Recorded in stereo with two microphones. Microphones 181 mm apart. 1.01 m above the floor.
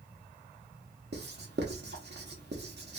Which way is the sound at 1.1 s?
65° right (ahead or behind).